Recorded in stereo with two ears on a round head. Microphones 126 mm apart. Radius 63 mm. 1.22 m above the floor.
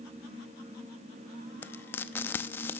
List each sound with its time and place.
1.6 s frying: 15° left (ahead or behind), 0.7 m